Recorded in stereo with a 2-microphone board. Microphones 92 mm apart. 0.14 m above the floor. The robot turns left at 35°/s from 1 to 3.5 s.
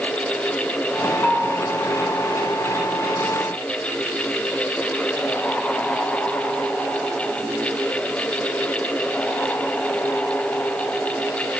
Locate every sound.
1.2 s a bell: 15° left (ahead or behind), 1.8 m; by 1.5 s 20° left (ahead or behind), 1.8 m